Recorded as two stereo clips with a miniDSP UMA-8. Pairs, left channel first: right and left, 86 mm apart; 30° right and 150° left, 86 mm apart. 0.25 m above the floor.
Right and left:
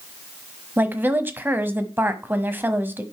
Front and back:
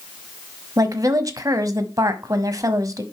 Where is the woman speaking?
145° left, 1.2 m.